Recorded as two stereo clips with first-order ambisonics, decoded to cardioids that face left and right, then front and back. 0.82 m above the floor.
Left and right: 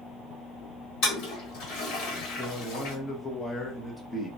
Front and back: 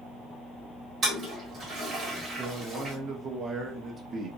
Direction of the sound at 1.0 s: 115° left.